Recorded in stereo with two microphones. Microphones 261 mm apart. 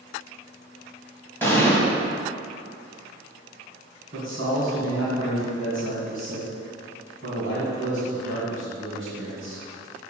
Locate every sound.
1.4 s an explosion: 10° left (ahead or behind), 1.5 m
4.1 s a man speaking: 50° right (ahead or behind), 2 m